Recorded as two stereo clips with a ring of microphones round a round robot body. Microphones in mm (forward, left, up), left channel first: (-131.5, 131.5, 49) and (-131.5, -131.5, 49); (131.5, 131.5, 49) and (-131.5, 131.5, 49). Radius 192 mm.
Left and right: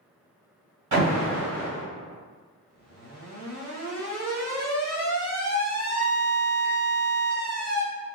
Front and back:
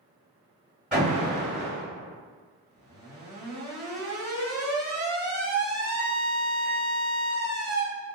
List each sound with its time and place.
0.9 s an alarm: 90° right, 2.0 m